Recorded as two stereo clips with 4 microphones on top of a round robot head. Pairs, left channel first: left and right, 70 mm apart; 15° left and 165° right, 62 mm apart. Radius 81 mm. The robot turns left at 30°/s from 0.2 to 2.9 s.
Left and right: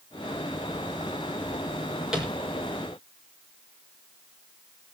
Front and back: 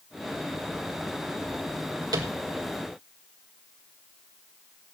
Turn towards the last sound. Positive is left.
turn(degrees=165)